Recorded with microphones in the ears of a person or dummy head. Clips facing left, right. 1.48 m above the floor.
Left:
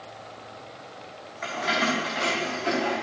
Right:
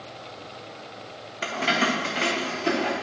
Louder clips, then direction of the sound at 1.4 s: Right 2 dB; 45° right (ahead or behind).